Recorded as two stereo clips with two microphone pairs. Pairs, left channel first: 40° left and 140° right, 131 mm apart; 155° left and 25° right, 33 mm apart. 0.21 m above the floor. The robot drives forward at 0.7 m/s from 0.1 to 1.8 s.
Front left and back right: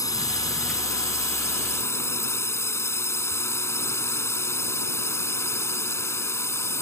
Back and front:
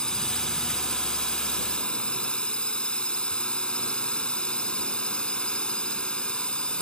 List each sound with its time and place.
0.0 s a drone: 95° left; by 6.8 s 105° left